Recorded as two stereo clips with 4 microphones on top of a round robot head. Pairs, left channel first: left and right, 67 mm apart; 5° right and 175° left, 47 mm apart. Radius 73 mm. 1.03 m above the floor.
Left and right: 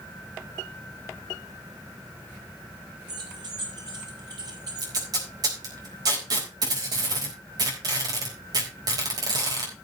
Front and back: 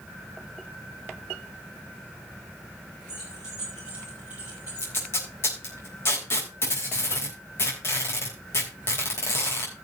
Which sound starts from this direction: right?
Keys jangling, at 3.1 s.